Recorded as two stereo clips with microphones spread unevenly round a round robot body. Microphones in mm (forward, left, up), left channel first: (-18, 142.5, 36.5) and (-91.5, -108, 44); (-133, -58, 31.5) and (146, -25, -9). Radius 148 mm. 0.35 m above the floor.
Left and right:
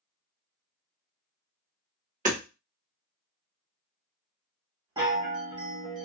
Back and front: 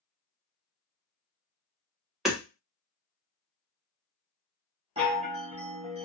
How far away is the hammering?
About 1.2 m.